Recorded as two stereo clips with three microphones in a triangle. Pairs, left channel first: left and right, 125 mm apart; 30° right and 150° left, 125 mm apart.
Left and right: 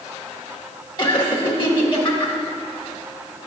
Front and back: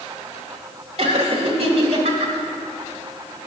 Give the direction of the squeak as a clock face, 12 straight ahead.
I don't hear a squeak.